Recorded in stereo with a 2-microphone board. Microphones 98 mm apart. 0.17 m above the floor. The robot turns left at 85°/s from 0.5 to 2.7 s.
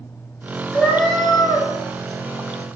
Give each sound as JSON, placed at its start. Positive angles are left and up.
{"t": 0.7, "sound": "a cat meowing", "azimuth_deg": -160, "distance_m": 0.9}